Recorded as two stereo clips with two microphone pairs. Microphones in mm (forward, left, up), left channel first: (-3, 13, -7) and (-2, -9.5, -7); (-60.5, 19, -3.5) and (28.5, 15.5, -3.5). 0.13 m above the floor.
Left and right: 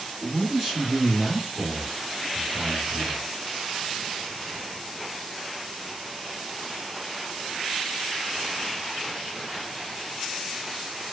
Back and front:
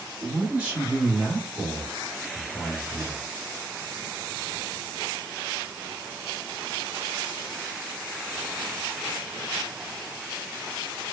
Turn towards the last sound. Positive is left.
turn(degrees=-150)